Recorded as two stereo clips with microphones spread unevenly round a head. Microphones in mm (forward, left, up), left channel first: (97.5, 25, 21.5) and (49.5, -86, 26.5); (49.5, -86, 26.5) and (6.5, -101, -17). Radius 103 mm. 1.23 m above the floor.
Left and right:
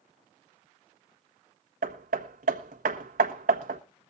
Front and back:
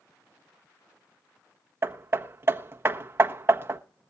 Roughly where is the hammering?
Behind right.